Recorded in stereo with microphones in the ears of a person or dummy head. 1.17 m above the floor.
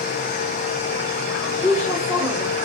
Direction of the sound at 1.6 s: 5° left (ahead or behind).